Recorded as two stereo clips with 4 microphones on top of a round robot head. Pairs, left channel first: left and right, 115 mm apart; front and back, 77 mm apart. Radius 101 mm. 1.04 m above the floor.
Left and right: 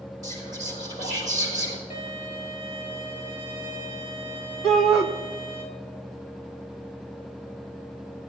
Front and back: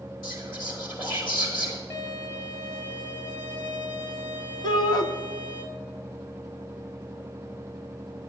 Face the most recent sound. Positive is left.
turn(degrees=5)